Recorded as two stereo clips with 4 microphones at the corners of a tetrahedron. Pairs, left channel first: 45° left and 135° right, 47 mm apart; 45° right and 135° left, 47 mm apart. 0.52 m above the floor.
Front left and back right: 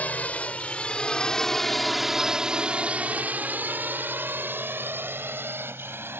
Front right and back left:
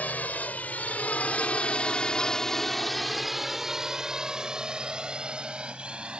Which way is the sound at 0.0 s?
Straight ahead.